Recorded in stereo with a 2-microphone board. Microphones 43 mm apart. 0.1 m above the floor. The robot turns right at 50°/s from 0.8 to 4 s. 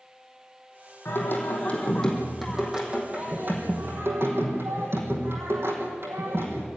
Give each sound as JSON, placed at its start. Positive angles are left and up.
{"t": 1.1, "sound": "singing", "azimuth_deg": 110, "distance_m": 4.5}